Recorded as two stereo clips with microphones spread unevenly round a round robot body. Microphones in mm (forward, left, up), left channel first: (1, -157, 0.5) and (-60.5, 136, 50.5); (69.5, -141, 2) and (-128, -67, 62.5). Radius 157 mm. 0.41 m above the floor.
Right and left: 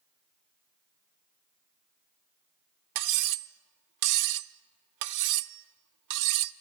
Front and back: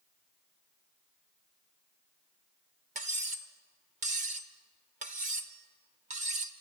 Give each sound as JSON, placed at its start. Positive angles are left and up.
{"t": 3.0, "sound": "cutlery clinking", "azimuth_deg": 95, "distance_m": 0.5}